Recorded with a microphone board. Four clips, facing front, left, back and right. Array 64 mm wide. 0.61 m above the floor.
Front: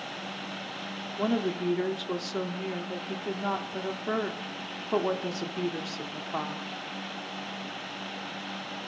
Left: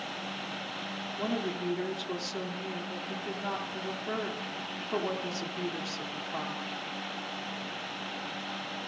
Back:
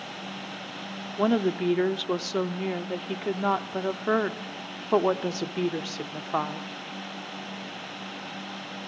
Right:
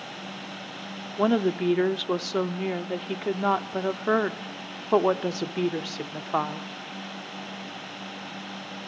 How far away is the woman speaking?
About 0.9 m.